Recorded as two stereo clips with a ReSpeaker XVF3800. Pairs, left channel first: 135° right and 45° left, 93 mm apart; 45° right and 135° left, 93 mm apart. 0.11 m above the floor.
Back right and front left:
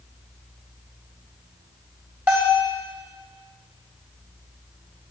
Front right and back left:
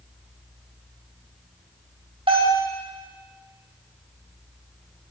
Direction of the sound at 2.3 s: 115° left.